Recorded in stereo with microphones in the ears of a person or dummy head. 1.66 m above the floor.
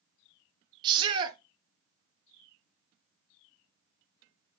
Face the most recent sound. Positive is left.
turn(degrees=-20)  # may be behind; listen again after turning